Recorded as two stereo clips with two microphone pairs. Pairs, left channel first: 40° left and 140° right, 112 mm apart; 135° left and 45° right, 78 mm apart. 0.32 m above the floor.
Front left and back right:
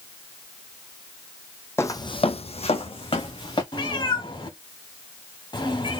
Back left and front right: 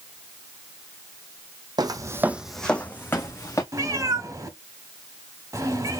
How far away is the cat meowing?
About 1.1 m.